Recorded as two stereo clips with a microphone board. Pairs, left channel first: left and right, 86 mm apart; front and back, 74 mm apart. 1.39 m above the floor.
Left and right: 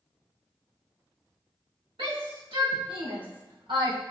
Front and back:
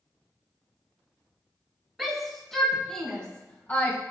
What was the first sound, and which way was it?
A shout, 90° right.